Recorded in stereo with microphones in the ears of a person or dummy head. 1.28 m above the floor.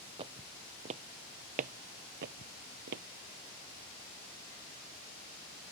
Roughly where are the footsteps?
Right.